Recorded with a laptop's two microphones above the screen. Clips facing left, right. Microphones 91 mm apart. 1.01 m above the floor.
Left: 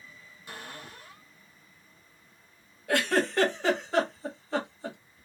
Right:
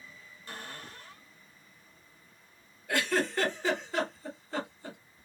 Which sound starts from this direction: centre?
A cupboard door, at 0.5 s.